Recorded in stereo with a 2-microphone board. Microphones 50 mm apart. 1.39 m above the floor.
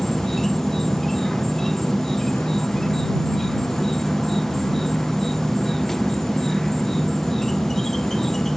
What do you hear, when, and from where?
0.0 s an insect: 5° left (ahead or behind)